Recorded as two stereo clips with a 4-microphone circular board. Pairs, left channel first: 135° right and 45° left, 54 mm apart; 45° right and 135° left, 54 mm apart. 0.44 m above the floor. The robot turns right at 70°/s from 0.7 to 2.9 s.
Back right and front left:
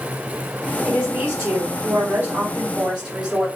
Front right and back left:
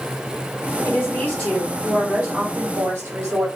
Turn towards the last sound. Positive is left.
turn(degrees=125)